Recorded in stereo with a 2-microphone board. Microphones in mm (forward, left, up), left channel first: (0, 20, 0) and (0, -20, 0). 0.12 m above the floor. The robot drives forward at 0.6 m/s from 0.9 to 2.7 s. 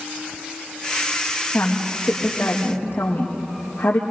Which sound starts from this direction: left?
A woman speaking, at 1.5 s.